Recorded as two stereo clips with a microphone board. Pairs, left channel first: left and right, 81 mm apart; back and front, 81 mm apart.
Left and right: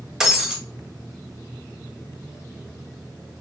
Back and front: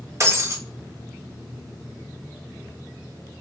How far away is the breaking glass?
About 0.9 m.